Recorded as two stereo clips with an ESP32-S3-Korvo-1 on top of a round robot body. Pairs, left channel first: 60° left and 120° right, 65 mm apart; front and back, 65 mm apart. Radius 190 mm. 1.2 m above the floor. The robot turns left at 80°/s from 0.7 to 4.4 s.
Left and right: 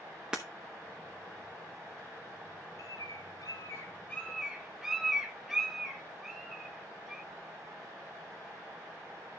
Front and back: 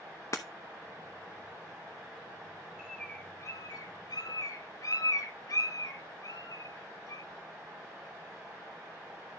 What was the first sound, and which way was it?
Breaking glass, 40° right.